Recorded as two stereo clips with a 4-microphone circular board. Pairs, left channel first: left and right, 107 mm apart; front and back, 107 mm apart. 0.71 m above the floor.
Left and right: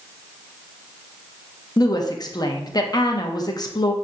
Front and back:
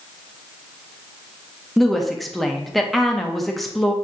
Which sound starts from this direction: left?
A woman speaking, at 1.8 s.